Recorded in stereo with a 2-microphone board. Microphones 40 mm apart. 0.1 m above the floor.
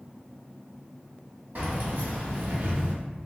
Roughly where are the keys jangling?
Right.